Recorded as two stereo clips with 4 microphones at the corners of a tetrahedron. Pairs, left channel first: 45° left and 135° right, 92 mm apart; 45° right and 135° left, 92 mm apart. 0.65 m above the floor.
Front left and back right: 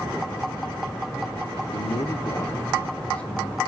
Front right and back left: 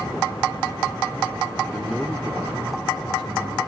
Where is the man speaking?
25° left, 1.2 m; by 3.6 s 125° left, 2.5 m.